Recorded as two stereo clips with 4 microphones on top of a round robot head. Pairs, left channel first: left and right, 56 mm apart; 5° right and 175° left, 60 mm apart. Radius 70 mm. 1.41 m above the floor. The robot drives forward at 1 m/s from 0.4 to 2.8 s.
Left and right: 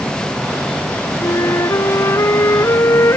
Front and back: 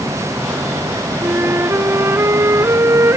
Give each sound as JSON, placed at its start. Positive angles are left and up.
{"t": 1.2, "sound": "a flute", "azimuth_deg": 120}